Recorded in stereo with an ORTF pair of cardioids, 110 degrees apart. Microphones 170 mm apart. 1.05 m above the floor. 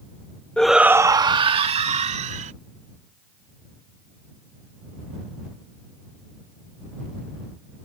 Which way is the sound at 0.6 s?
5° left.